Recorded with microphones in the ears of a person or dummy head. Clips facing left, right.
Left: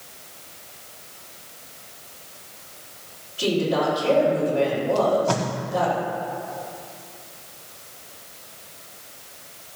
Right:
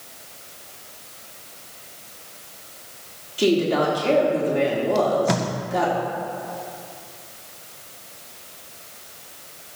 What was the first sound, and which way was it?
A woman speaking, 50° right (ahead or behind).